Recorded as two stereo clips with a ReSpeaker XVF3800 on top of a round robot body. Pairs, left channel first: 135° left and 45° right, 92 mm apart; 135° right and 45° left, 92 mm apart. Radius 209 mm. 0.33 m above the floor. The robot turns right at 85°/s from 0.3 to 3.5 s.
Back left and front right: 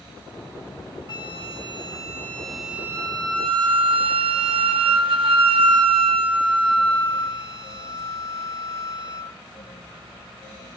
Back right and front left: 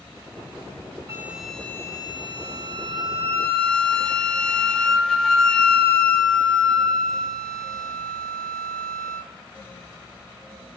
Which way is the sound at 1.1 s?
100° left.